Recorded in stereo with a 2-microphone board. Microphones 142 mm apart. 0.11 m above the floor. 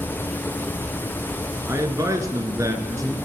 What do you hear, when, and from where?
1.7 s a man speaking: 25° right (ahead or behind), 1.2 m